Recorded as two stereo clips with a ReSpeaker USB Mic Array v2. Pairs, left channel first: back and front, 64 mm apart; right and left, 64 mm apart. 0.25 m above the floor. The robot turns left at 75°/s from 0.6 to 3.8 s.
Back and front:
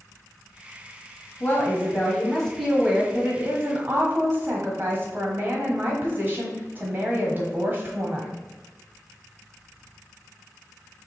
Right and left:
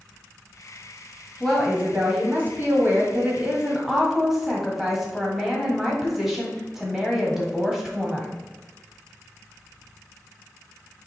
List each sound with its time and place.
1.4 s a woman speaking: 170° right, 1.3 m; by 8.4 s 10° left, 1.3 m